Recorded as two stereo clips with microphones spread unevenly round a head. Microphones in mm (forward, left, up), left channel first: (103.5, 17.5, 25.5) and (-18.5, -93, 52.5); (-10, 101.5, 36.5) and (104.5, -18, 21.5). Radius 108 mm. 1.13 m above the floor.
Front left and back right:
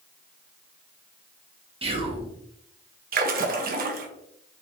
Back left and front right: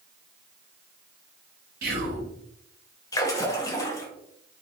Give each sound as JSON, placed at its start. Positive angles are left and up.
{"t": 1.8, "sound": "whispering", "azimuth_deg": -80, "distance_m": 1.2}
{"t": 3.1, "sound": "a splash", "azimuth_deg": -155, "distance_m": 0.7}